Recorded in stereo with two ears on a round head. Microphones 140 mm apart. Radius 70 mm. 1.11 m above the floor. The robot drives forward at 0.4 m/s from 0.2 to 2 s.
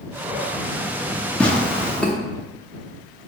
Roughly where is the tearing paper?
Centre.